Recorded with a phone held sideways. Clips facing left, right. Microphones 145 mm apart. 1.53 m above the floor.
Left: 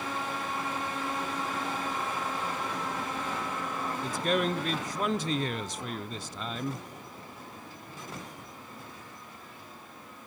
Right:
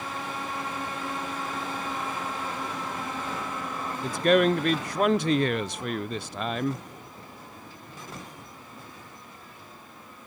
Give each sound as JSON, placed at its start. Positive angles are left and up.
{"t": 4.0, "sound": "a man speaking", "side_deg": -65, "distance_m": 0.5}